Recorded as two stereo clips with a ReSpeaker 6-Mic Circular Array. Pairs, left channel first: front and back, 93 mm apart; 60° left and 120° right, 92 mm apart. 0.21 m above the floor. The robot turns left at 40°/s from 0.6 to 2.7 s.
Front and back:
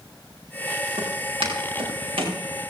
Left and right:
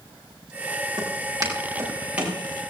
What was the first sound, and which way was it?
Footsteps, 155° right.